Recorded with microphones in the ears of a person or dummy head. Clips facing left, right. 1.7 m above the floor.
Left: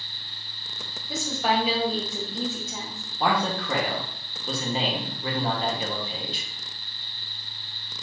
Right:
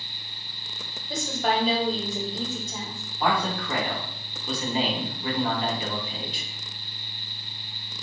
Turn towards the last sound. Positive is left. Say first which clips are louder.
# left 1 dB
turn(degrees=25)  # may be behind; listen again after turning